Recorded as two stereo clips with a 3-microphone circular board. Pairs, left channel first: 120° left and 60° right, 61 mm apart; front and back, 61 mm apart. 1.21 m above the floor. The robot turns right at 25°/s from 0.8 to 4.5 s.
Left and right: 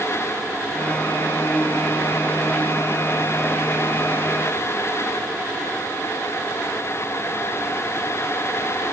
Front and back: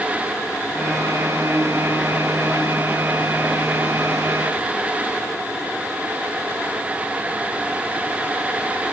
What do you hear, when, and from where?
Only background noise.